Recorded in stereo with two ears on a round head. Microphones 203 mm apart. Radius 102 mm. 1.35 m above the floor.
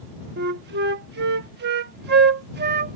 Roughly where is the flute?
Right.